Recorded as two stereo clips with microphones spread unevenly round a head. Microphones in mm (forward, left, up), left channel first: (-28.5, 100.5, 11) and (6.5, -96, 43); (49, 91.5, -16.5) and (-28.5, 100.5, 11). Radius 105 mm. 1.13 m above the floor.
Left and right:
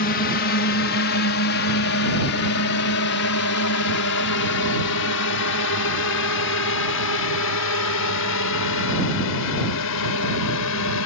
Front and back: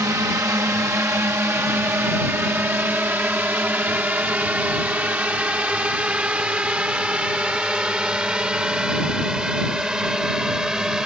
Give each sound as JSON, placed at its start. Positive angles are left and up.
{"t": 0.0, "sound": "a drone", "azimuth_deg": 120}